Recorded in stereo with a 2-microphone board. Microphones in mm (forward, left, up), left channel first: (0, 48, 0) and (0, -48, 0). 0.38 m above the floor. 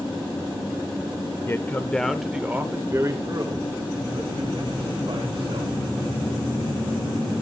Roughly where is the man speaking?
Left.